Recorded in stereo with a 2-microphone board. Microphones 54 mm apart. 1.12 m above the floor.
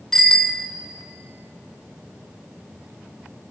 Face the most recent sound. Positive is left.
turn(degrees=10)  # may be behind; listen again after turning